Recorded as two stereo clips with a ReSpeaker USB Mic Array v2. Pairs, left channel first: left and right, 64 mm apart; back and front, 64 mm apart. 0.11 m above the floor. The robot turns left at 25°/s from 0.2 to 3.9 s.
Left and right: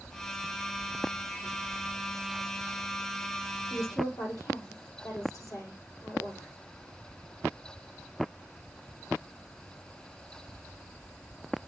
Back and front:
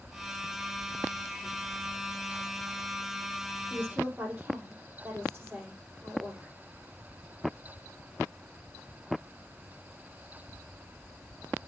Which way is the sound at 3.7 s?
70° left.